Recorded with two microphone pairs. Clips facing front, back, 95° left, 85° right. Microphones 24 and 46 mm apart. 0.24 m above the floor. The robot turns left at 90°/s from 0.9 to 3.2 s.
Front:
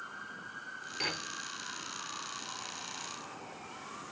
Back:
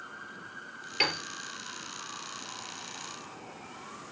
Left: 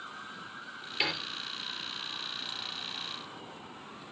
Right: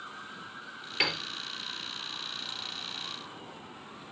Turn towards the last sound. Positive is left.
turn(degrees=30)